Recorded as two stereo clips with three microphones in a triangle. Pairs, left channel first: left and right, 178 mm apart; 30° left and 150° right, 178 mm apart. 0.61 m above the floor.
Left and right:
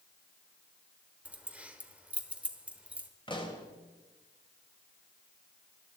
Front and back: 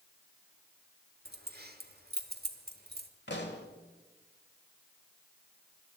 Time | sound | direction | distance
1.2 | keys jangling | 175° right | 1.1 m
3.3 | a pop | 30° left | 1.7 m